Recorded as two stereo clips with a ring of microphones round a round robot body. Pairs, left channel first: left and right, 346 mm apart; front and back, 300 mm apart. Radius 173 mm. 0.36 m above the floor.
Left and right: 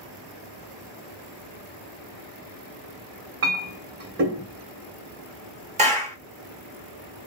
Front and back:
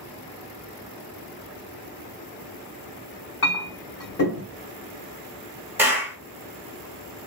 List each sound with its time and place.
3.4 s a clink: 45° right, 1.3 m
5.8 s a clap: 110° right, 1.1 m